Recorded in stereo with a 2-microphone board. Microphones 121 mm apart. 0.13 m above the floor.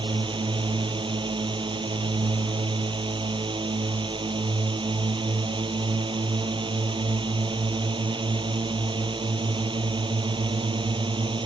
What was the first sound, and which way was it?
A drone, 40° right (ahead or behind).